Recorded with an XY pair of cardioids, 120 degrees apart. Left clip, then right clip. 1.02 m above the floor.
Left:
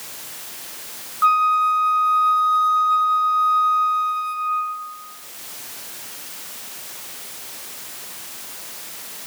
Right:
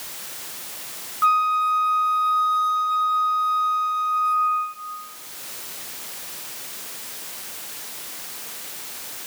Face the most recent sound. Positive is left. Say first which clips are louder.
# left 3 dB
turn(degrees=10)